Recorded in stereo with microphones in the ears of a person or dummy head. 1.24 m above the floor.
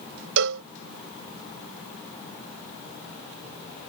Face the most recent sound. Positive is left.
turn(degrees=-65)  # may be behind; listen again after turning